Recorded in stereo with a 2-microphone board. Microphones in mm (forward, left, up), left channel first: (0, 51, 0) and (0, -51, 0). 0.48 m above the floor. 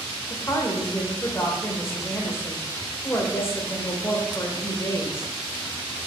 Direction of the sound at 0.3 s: 25° left (ahead or behind).